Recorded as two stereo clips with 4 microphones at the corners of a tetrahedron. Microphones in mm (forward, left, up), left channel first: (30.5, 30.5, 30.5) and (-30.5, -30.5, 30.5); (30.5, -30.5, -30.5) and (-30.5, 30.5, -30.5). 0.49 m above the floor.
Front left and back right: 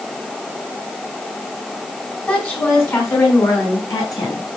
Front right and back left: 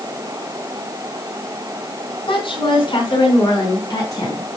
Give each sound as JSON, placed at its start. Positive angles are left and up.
{"t": 2.3, "sound": "a woman speaking", "azimuth_deg": -25, "distance_m": 4.5}